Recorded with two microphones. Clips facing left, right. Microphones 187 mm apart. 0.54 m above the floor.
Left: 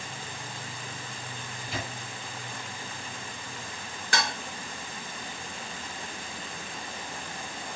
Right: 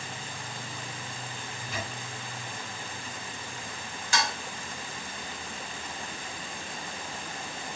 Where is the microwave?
85° left, 3 m.